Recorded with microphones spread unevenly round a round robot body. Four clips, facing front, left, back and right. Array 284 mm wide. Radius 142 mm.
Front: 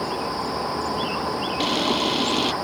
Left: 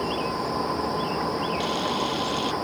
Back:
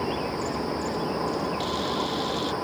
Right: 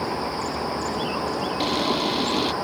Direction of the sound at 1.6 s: 30° right.